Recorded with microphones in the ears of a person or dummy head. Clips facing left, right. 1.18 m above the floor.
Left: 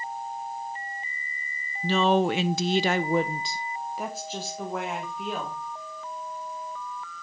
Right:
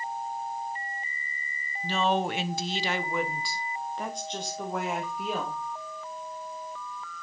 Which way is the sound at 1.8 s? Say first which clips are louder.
Left 5 dB; 55° left (ahead or behind).